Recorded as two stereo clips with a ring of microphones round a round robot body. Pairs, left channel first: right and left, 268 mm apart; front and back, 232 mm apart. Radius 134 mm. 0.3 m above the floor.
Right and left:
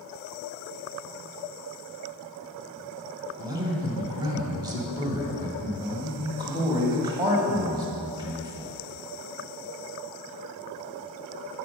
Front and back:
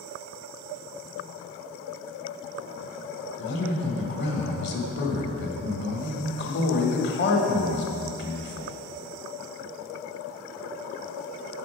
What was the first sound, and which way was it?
A man speaking, 20° left.